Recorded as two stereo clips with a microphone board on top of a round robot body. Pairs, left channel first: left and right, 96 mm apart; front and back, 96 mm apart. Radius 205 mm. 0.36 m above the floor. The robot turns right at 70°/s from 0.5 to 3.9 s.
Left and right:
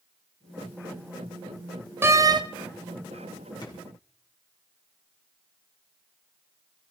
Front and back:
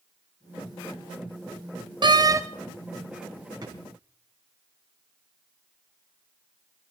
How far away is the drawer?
About 3.5 m.